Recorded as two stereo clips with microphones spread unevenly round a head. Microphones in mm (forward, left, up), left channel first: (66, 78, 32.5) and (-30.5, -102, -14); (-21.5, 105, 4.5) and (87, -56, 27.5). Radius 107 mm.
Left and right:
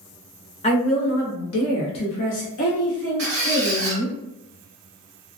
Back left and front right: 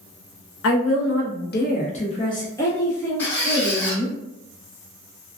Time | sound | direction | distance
0.6 | a woman speaking | 125° left | 0.9 m
3.2 | a squeak | 150° right | 1.2 m